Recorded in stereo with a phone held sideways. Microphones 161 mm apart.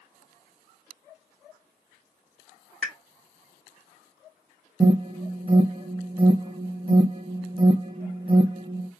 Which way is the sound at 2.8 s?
5° left (ahead or behind).